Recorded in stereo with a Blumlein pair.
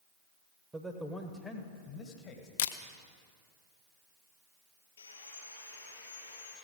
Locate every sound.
0.7 s a man speaking: 10° right, 1.0 m; by 2.5 s 40° left, 1.6 m
2.6 s a camera shutter: 55° left, 0.5 m
5.0 s sawing: 65° left, 4.5 m